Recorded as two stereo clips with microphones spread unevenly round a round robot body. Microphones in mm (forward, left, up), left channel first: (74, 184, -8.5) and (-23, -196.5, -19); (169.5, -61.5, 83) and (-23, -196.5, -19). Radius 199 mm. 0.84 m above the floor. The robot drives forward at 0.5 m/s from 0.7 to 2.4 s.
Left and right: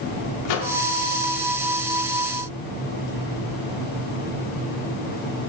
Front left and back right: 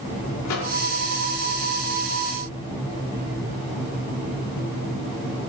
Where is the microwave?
55° left, 1.3 m.